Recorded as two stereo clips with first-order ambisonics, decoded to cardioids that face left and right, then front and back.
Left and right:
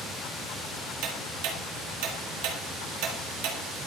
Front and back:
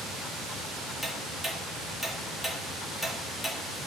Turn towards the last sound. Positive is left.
turn(degrees=-90)